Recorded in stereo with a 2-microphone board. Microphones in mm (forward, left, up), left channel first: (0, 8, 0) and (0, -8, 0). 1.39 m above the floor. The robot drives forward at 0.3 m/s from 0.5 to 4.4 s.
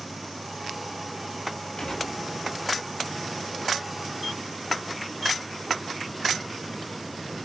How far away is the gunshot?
About 9.5 m.